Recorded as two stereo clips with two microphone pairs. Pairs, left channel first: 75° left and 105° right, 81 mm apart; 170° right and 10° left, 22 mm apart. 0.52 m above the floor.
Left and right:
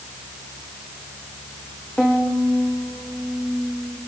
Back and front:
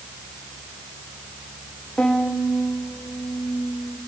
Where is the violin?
155° left, 5 m.